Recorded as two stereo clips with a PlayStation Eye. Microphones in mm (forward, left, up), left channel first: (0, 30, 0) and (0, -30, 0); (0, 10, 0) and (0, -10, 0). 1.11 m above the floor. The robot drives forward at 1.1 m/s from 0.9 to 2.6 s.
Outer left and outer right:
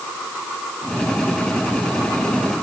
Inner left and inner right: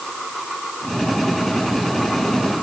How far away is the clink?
I don't hear a clink.